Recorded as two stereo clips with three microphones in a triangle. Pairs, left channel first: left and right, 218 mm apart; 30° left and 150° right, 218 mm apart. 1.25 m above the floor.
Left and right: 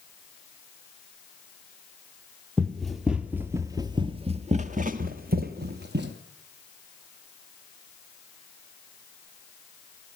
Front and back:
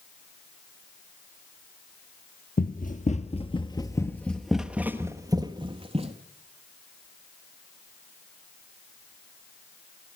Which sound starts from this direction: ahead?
Running footsteps, at 2.6 s.